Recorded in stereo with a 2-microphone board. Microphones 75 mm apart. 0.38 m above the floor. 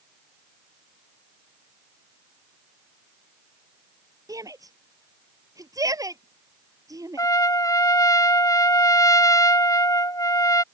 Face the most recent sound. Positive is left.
turn(degrees=55)  # may be behind; listen again after turning